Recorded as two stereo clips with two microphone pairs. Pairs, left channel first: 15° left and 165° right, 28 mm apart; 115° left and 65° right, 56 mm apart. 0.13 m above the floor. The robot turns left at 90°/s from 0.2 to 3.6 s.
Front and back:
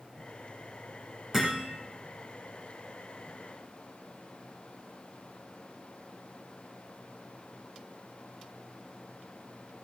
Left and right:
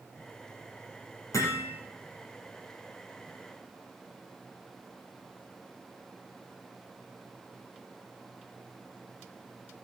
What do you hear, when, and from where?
1.3 s hammering: 120° left, 4.5 m; by 1.7 s 85° left, 4.5 m